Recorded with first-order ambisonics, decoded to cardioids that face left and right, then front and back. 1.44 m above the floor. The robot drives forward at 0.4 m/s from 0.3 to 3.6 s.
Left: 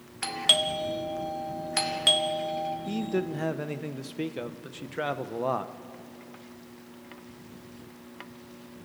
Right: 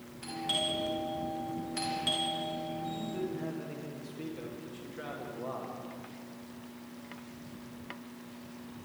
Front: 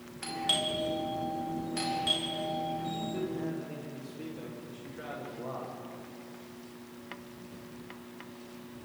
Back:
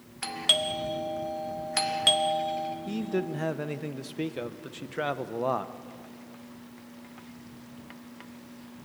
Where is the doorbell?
115° left, 1.5 m; by 2.8 s 145° left, 2 m.